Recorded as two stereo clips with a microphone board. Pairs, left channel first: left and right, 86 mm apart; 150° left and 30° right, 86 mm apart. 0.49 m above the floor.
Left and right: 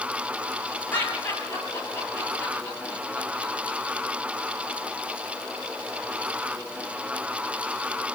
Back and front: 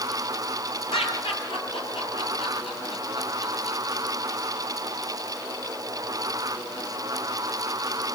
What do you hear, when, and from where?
0.9 s laughter: 155° left, 9.5 m